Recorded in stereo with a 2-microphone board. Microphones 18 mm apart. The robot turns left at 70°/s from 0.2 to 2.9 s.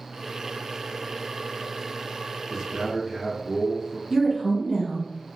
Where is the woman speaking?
25° right (ahead or behind), 1.1 m.